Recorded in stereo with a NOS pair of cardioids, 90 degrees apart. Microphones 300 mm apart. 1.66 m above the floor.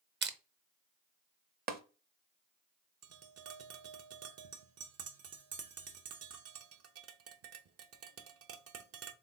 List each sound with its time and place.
0.2 s crushing: 35° right, 0.8 m
1.7 s tapping: 30° right, 0.8 m
3.0 s tapping: 50° right, 0.8 m